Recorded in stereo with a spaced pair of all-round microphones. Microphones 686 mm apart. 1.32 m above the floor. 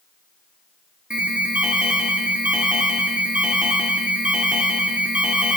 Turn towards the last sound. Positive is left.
turn(degrees=0)  # may be behind; listen again after turning